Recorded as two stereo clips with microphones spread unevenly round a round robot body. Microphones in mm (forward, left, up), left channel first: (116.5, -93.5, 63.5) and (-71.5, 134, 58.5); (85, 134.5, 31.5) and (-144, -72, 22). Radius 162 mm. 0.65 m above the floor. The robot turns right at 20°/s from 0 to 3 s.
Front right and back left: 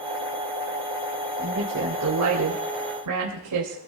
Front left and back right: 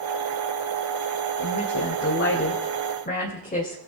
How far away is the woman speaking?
About 3.5 m.